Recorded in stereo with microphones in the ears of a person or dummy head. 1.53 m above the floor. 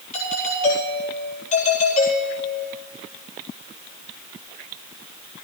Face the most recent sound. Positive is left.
turn(degrees=40)  # may be behind; listen again after turning